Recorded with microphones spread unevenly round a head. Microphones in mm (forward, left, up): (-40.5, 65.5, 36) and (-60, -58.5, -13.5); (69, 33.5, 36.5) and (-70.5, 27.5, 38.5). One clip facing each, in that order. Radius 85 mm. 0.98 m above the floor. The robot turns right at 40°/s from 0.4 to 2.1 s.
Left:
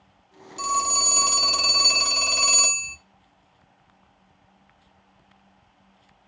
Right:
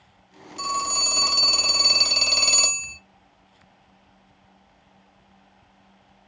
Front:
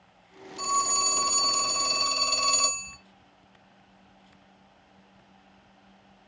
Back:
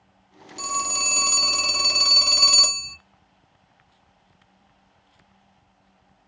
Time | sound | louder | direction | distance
0.6 | a phone ringing | left 2 dB, front 2 dB | 140° left | 1.0 m